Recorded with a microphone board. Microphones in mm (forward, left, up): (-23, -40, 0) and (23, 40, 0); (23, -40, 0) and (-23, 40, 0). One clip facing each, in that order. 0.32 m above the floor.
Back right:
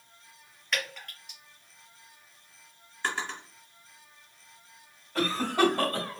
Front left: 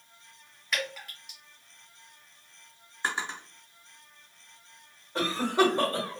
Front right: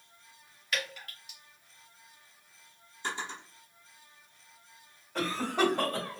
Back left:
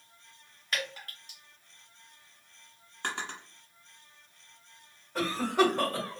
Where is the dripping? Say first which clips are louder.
Front left 1 dB, even; 145° left, 1.5 m.